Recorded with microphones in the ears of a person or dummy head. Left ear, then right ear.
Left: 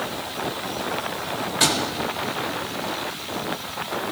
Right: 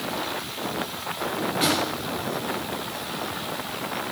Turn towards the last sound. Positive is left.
turn(degrees=35)  # may be behind; listen again after turning